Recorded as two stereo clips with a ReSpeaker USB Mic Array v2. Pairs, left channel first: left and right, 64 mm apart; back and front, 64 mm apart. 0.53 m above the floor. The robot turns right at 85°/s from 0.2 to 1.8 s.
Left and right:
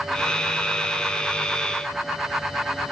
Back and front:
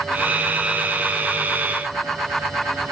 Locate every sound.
Only background noise.